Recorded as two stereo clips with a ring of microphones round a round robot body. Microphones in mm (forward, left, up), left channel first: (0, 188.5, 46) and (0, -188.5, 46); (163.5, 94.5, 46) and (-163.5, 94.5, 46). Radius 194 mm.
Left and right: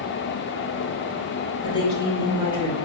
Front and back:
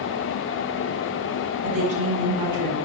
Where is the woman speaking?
165° left, 3.5 m.